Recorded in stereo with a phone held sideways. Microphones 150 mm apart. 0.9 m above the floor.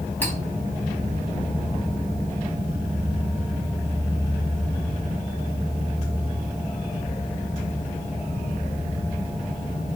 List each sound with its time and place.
0.2 s cutlery clinking: 10° left (ahead or behind), 4 m